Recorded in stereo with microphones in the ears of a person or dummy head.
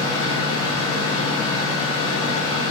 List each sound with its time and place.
0.0 s a machine running: 20° left (ahead or behind), 0.7 m